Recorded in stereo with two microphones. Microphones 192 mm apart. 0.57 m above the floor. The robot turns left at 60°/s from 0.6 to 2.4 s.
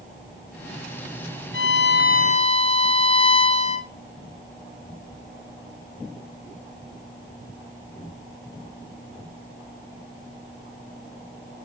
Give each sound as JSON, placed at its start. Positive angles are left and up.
{"t": 1.5, "sound": "a violin", "azimuth_deg": 85, "distance_m": 0.6}